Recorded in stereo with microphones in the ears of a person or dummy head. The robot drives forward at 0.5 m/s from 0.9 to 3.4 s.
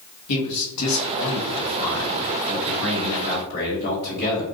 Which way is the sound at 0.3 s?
80° left.